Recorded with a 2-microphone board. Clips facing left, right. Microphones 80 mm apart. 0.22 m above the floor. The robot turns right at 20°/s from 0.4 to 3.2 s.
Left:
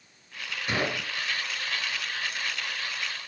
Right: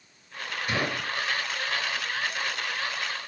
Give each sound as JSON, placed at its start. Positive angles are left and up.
{"t": 0.7, "sound": "a gunshot", "side_deg": 20, "distance_m": 3.5}